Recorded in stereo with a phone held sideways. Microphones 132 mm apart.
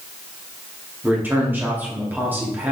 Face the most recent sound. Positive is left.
turn(degrees=-15)  # may be behind; listen again after turning